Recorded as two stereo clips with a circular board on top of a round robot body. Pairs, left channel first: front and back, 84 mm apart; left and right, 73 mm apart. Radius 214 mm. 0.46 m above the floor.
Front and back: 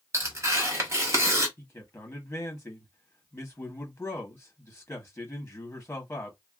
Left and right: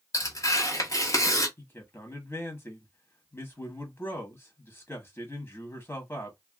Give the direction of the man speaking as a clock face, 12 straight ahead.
10 o'clock.